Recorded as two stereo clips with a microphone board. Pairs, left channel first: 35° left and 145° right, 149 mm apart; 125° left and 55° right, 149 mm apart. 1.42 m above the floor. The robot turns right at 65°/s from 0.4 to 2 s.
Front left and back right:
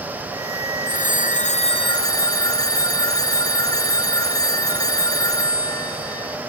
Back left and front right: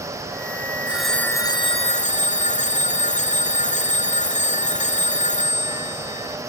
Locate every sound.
0.9 s a phone ringing: 25° left, 0.6 m; by 6.4 s 100° left, 0.6 m